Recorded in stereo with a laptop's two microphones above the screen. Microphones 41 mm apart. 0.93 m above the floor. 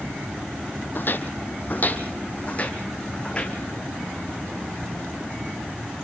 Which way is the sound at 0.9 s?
50° left (ahead or behind).